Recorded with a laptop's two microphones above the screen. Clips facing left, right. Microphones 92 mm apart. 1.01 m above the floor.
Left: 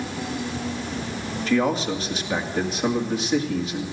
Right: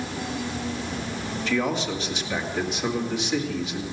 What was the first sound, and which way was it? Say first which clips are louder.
A man speaking: left 4 dB; 35° left (ahead or behind).